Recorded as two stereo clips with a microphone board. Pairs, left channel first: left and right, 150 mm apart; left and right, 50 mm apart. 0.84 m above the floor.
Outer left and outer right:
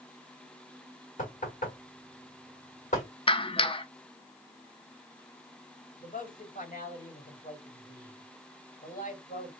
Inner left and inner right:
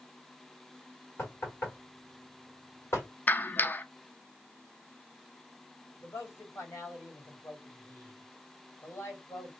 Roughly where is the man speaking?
Left.